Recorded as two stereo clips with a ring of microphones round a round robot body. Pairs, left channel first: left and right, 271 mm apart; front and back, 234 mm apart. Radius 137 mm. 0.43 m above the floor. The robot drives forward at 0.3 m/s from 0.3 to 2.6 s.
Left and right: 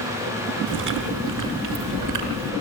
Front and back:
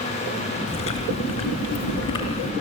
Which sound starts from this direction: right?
Chewing, at 0.7 s.